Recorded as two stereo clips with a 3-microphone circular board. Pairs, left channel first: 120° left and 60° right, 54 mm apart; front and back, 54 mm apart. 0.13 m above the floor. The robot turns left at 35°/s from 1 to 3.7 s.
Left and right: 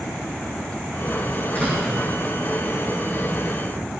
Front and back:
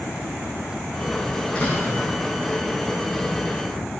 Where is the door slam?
65° left, 6.5 m; by 2.0 s 50° left, 6.5 m.